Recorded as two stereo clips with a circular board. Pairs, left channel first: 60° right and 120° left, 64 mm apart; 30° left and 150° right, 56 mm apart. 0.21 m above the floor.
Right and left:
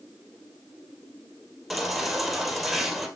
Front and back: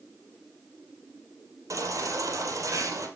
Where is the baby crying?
150° right, 2.5 m.